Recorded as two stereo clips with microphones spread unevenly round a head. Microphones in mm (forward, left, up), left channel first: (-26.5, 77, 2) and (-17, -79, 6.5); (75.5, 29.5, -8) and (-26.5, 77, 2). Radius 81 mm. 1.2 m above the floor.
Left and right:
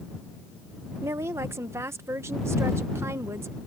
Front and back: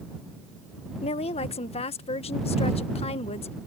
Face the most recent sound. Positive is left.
turn(degrees=-10)